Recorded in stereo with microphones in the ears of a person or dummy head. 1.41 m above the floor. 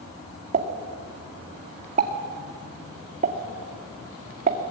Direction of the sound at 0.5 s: 40° right (ahead or behind).